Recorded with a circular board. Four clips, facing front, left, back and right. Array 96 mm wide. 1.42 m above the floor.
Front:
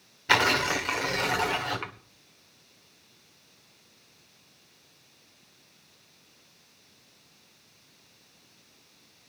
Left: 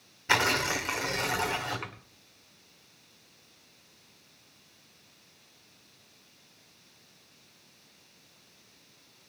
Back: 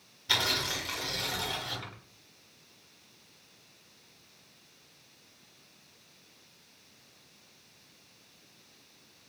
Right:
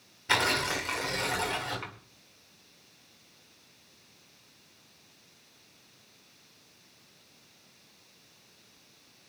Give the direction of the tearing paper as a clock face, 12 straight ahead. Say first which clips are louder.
Left 1 dB, front 9 dB; 11 o'clock.